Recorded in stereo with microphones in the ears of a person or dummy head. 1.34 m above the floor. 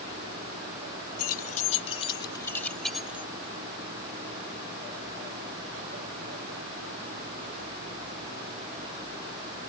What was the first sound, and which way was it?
Keys jangling, 45° left (ahead or behind).